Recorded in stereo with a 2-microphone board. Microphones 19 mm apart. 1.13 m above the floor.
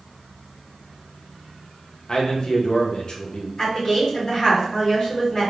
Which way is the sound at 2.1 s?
45° left (ahead or behind).